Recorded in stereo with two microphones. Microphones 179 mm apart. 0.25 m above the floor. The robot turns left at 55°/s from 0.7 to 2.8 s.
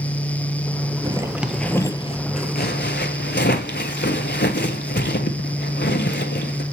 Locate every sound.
1.0 s a zipper: 25° right (ahead or behind), 0.7 m; by 6.6 s 70° left (ahead or behind), 0.7 m